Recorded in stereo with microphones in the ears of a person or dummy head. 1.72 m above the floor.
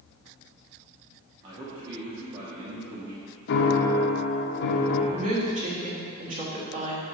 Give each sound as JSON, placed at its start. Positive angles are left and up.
{"t": 1.4, "sound": "a man speaking", "side_deg": -20, "distance_m": 1.2}
{"t": 3.5, "sound": "a piano", "side_deg": 60, "distance_m": 0.7}
{"t": 5.1, "sound": "a woman speaking", "side_deg": -40, "distance_m": 1.4}